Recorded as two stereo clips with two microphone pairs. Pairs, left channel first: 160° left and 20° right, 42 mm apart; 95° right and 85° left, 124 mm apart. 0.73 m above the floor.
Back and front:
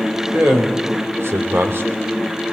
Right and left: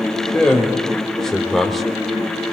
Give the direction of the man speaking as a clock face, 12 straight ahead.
12 o'clock.